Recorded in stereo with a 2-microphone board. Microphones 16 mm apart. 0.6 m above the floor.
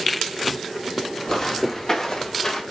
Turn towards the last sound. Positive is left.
turn(degrees=35)  # may be behind; listen again after turning